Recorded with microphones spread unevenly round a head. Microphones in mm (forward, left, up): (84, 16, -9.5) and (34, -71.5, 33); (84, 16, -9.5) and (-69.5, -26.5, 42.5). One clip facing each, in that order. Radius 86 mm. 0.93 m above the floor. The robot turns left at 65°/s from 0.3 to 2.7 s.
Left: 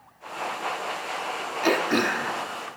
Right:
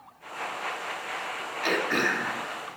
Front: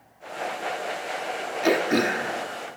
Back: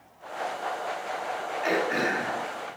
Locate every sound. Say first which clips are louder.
1.6 s throat clearing: left 4 dB, front 5 dB; 30° left, 2.5 m; by 2.8 s 35° right, 2.5 m